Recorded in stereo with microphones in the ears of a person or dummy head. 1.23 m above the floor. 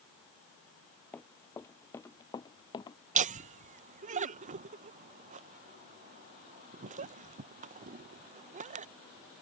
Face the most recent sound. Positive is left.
turn(degrees=-35)  # may be behind; listen again after turning